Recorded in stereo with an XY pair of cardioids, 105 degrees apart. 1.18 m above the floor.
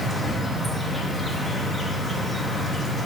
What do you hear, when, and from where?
0.0 s an insect: 5° left, 1.4 m